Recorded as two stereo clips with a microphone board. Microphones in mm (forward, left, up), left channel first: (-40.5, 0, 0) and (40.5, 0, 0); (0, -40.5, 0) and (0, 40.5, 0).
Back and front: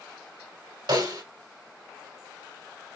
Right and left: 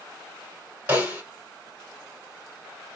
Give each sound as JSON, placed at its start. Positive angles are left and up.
{"t": 0.9, "sound": "a snare drum", "azimuth_deg": 20, "distance_m": 2.0}